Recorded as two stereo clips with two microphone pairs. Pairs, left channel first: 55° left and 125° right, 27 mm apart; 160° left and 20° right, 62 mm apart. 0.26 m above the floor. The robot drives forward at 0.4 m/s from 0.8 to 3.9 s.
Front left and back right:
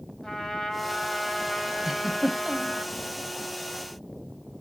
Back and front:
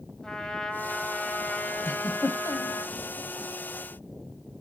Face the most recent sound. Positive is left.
turn(degrees=170)